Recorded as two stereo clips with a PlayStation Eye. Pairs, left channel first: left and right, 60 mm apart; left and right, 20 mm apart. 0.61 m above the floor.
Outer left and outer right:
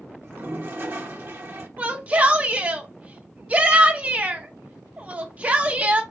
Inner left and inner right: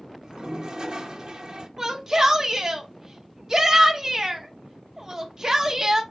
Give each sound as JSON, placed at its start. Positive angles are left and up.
{"t": 0.2, "sound": "a toilet flushing", "side_deg": -45, "distance_m": 0.6}
{"t": 1.8, "sound": "a shout", "side_deg": -25, "distance_m": 0.7}